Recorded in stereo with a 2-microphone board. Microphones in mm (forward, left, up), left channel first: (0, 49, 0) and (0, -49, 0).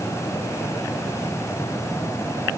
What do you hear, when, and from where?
Only background noise.